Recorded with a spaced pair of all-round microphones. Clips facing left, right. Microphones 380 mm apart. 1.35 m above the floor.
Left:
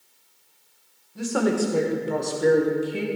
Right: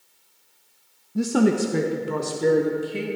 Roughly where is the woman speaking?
Right.